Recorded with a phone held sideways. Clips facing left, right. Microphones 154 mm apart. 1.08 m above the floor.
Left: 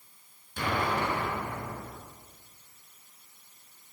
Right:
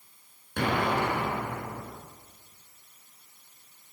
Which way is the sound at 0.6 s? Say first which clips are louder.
Right 3 dB; 65° right (ahead or behind).